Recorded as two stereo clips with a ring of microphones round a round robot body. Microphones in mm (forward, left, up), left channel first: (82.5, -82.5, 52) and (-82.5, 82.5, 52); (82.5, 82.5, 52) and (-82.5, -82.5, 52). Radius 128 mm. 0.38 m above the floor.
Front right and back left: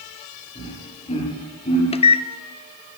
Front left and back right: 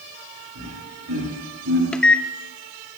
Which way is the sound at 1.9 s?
35° right.